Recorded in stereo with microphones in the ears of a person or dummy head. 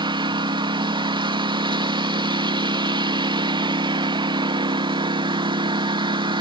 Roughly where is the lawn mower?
Right.